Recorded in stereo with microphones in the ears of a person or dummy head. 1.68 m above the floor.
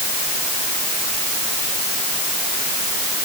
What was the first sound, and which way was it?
Only background noise.